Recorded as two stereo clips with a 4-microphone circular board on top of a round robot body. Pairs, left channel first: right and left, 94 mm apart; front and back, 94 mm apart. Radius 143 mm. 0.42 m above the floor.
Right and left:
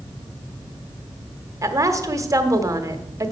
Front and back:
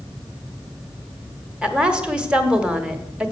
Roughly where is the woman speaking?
Left.